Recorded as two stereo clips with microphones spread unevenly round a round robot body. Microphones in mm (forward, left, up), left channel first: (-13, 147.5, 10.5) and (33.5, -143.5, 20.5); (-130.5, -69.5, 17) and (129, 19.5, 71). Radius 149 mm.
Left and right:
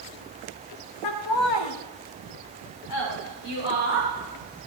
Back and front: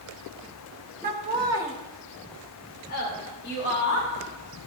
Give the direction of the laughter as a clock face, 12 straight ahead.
9 o'clock.